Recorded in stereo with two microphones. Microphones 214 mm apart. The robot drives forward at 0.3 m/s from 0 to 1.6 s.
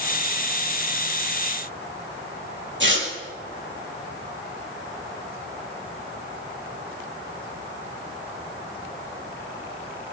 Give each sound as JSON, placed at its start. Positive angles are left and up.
{"t": 2.8, "sound": "tearing paper", "side_deg": -60, "distance_m": 4.0}